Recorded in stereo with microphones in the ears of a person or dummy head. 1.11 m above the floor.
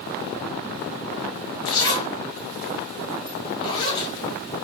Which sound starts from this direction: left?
A zipper, at 1.6 s.